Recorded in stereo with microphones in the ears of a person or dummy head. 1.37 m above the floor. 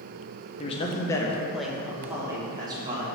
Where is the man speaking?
35° left (ahead or behind), 1.0 m; by 3.1 s 25° right (ahead or behind), 1.8 m.